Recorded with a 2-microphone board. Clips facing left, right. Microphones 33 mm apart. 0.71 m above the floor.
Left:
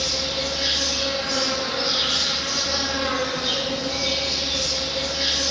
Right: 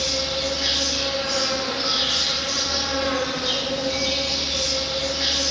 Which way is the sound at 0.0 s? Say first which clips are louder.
Right 1 dB; 60° left (ahead or behind).